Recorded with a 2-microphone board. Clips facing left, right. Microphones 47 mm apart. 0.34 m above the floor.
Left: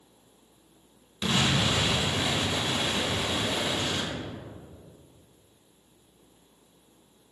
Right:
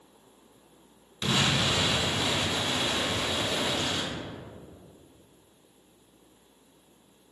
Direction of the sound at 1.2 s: 10° left (ahead or behind).